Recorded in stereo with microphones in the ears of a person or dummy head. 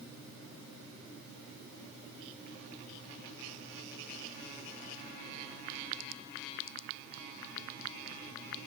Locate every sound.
Only background noise.